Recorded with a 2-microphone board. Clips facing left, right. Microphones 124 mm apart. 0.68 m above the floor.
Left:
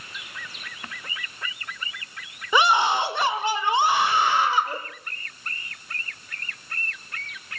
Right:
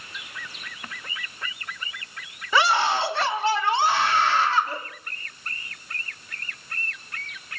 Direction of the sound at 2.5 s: 15° left (ahead or behind).